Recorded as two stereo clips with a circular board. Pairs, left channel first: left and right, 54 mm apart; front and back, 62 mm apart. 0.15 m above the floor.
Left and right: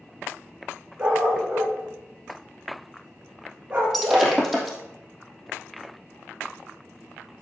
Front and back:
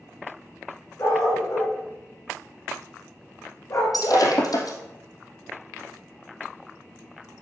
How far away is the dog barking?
About 7.5 m.